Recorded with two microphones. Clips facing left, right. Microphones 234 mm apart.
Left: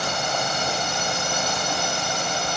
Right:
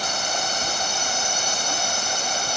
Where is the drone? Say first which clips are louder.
Left 3 dB; 65° left (ahead or behind).